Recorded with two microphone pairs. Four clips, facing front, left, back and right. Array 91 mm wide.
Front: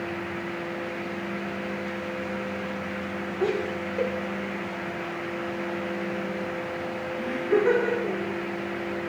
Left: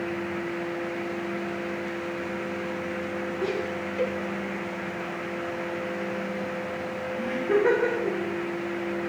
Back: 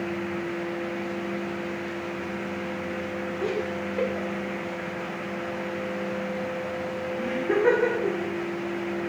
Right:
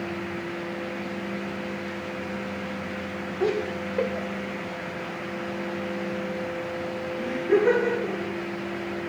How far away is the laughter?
About 1.5 m.